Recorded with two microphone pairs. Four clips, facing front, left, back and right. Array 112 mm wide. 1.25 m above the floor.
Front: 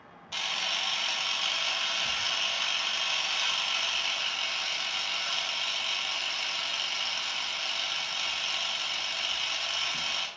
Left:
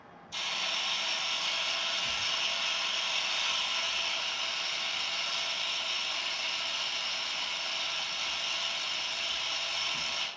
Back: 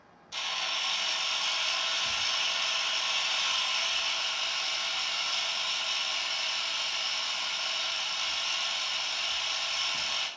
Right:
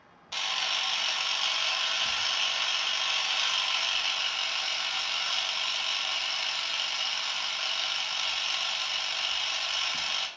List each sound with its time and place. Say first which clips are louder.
0.3 s a camera shutter: right 4 dB, front 1 dB; 60° right, 0.5 m